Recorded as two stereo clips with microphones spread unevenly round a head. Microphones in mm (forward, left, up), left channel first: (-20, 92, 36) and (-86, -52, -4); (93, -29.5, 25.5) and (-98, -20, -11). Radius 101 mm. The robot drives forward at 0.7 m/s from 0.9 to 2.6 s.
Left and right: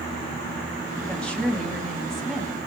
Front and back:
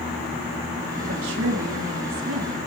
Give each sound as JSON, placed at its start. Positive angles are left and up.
{"t": 1.0, "sound": "a woman speaking", "azimuth_deg": 150, "distance_m": 3.0}